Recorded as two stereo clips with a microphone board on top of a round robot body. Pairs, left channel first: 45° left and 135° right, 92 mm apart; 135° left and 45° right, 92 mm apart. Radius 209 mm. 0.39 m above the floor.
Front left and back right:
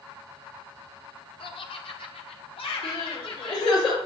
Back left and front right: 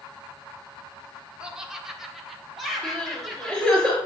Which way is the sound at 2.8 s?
60° left.